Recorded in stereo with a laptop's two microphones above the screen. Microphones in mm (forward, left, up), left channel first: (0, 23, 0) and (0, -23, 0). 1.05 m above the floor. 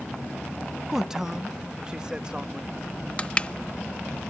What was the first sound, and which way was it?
A man speaking, 10° right (ahead or behind).